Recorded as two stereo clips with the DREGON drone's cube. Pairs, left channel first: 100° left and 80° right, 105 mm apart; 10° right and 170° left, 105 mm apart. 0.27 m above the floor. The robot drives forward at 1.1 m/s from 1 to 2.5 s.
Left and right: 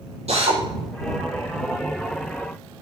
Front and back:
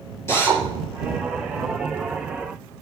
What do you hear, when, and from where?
0.3 s a drill: 80° right, 6 m